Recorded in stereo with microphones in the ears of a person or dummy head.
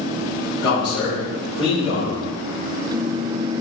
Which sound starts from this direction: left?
A man speaking, at 0.6 s.